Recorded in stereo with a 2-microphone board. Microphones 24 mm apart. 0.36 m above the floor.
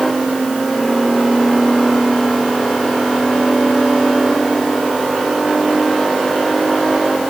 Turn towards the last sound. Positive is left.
No sound to turn to.